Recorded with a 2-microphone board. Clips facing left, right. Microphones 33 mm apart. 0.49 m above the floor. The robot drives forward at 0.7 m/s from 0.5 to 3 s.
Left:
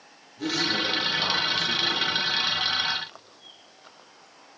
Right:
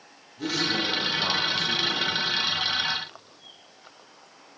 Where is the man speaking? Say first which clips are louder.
Even; centre (ahead or behind), 6.5 m.